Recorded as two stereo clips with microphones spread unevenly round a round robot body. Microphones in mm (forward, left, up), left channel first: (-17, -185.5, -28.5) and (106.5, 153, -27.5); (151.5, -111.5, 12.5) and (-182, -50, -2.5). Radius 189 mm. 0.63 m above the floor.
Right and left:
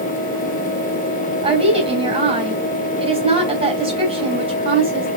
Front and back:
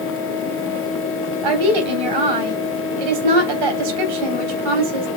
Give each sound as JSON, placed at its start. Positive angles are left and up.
{"t": 1.4, "sound": "a woman speaking", "azimuth_deg": 145, "distance_m": 3.5}